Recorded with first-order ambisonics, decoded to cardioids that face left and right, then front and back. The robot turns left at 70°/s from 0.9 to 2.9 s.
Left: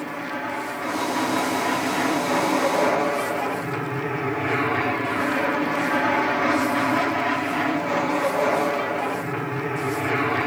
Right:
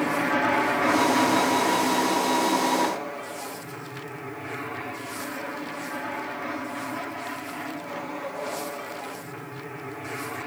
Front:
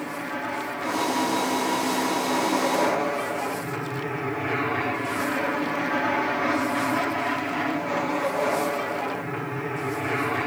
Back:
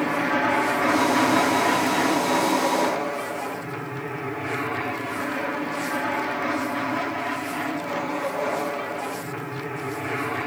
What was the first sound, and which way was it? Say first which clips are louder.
An aircraft: right 6 dB, back 8 dB; 140° right.